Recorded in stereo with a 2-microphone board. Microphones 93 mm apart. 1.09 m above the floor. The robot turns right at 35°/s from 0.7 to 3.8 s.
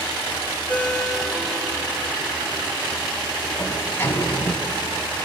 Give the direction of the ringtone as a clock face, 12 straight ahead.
7 o'clock.